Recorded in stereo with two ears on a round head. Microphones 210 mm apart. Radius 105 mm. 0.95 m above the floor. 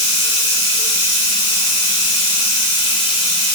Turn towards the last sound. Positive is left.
turn(degrees=25)  # may be behind; listen again after turning